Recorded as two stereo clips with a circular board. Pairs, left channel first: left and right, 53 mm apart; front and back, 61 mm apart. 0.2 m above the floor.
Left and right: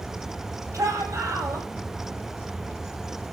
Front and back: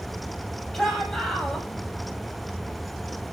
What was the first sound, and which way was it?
A shout, 80° right.